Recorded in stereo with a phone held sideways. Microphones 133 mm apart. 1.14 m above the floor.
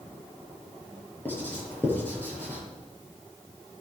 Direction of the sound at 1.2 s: 15° left (ahead or behind).